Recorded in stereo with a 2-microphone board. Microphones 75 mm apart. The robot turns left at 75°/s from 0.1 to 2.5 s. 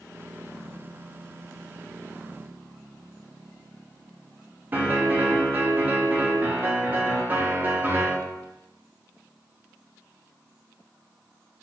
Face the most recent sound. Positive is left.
turn(degrees=-25)  # may be behind; listen again after turning